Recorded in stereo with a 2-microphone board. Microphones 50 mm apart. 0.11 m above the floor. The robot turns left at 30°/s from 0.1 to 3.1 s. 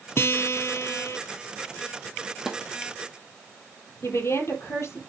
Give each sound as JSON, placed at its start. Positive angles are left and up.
{"t": 0.2, "sound": "a guitar", "azimuth_deg": 110, "distance_m": 0.7}
{"t": 2.5, "sound": "a snare drum", "side_deg": -5, "distance_m": 1.6}
{"t": 4.0, "sound": "a woman speaking", "side_deg": 60, "distance_m": 3.0}